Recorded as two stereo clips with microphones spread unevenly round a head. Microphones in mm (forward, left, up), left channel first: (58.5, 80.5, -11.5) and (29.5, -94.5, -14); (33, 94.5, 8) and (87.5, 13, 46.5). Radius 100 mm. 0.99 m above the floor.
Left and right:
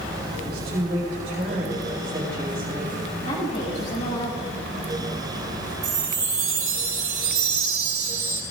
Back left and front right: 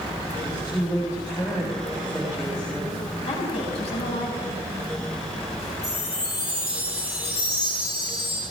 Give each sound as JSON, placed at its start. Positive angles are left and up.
{"t": 0.3, "sound": "a woman speaking", "azimuth_deg": -155, "distance_m": 4.0}
{"t": 3.2, "sound": "a woman speaking", "azimuth_deg": 140, "distance_m": 4.5}
{"t": 5.8, "sound": "a chime", "azimuth_deg": -170, "distance_m": 3.5}